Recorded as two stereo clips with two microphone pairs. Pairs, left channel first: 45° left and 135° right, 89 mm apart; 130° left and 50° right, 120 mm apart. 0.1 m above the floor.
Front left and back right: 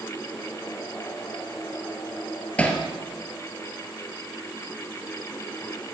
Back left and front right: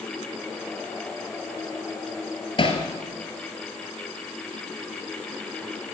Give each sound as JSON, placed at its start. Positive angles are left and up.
{"t": 2.6, "sound": "hammering", "azimuth_deg": 115, "distance_m": 1.9}